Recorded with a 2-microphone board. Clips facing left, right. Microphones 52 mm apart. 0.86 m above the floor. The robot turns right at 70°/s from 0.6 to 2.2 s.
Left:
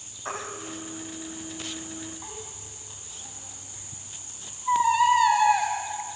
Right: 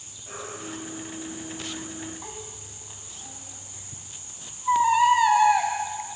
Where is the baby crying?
75° left (ahead or behind), 3.5 m; by 5.7 s 5° right (ahead or behind), 3.5 m.